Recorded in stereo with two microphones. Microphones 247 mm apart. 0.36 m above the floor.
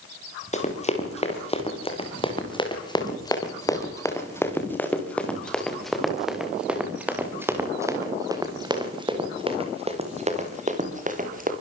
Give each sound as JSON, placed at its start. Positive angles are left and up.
{"t": 0.5, "sound": "running footsteps", "side_deg": 30, "distance_m": 6.5}